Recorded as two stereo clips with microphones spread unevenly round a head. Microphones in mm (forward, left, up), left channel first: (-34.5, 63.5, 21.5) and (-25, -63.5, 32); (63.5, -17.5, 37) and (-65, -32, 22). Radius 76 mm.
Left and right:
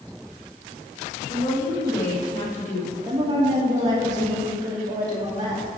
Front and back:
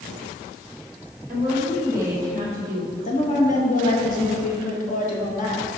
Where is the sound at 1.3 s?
110° left, 2.5 m; by 3.0 s 125° left, 1.7 m.